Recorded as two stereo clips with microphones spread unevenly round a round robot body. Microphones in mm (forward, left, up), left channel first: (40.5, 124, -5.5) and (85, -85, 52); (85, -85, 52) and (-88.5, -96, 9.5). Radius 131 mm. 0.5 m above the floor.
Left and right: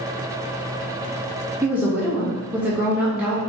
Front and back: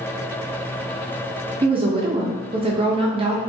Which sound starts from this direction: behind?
A woman speaking, at 1.6 s.